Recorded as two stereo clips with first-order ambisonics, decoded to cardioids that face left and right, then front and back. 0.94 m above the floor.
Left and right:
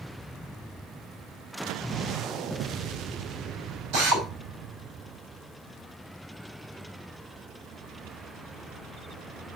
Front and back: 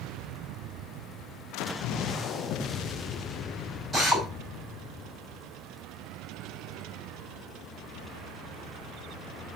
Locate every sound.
3.9 s a drill: 115° right, 6 m